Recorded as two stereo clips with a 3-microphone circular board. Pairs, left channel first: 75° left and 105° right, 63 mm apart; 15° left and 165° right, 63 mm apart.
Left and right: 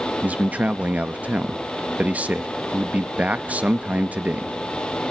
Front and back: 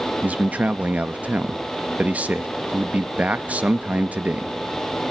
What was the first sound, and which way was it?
A man speaking, 135° right.